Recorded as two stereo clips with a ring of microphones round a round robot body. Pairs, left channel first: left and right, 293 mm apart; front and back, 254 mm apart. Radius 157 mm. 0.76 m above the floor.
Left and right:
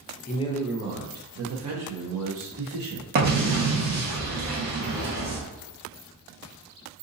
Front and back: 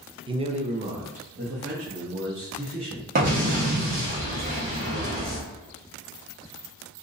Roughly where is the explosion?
Behind right.